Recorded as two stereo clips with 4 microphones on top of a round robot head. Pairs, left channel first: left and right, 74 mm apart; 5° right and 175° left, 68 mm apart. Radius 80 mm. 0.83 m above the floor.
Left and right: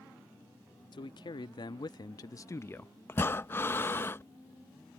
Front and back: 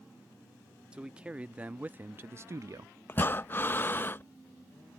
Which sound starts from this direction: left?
A man speaking, at 0.9 s.